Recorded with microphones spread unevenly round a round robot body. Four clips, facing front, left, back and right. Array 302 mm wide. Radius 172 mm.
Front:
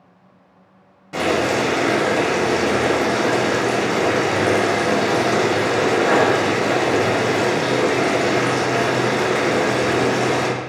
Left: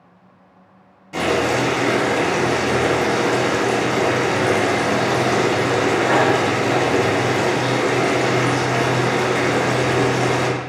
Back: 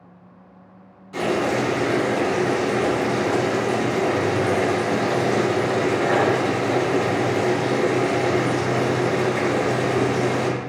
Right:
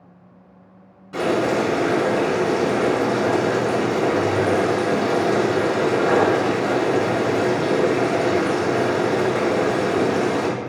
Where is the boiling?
5° left, 3 m.